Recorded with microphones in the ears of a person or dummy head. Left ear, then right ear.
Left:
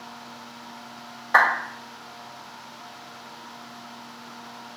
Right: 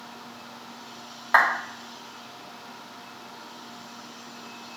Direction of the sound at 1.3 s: 30° right (ahead or behind).